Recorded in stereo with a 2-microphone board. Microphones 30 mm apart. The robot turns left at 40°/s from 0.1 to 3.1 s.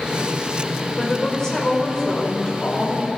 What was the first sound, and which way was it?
A woman speaking, 145° left.